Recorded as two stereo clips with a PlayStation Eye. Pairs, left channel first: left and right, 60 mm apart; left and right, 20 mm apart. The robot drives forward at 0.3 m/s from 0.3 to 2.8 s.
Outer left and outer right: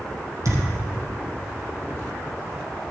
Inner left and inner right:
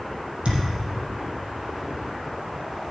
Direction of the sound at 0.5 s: 55° right (ahead or behind).